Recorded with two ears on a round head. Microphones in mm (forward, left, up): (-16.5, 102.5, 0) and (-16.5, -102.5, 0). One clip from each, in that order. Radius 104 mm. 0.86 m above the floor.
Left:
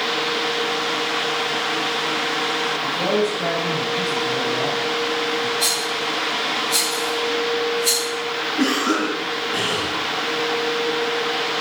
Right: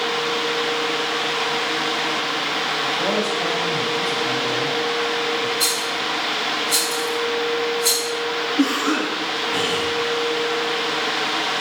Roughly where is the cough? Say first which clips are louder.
Left 2 dB; right.